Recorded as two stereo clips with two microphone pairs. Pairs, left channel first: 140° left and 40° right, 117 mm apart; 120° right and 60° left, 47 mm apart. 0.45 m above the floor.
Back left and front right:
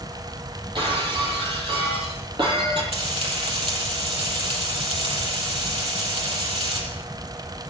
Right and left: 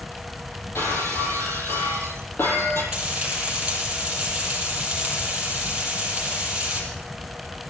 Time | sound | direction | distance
0.8 | breaking glass | 85° right | 5 m
2.9 | frying | 10° right | 7.5 m